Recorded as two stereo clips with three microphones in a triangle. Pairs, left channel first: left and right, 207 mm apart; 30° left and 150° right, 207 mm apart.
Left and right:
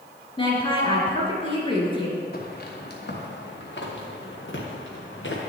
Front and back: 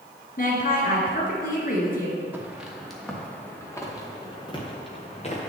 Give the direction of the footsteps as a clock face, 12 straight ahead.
8 o'clock.